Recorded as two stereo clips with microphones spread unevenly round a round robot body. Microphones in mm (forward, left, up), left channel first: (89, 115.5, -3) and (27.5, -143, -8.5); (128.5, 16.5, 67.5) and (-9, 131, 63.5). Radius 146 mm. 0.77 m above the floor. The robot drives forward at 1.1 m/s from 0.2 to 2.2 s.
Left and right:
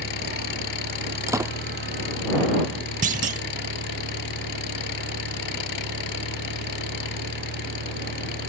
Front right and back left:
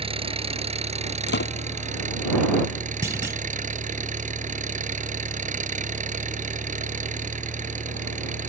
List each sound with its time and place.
0.0 s an engine running: 85° left; by 8.5 s 95° left
1.3 s a door slam: 25° right
3.0 s a clunk: 145° right